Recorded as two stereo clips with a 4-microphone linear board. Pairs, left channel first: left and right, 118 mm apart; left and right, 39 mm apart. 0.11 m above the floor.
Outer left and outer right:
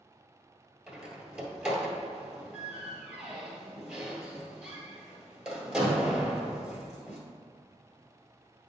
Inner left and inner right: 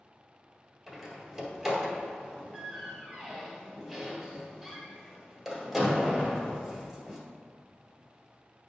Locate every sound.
0.9 s a door slam: 10° right (ahead or behind), 1.7 m